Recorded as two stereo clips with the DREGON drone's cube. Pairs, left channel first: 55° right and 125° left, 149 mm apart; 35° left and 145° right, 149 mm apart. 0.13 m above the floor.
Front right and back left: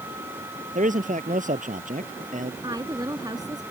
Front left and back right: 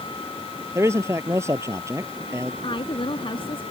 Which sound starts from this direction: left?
A woman speaking, at 2.6 s.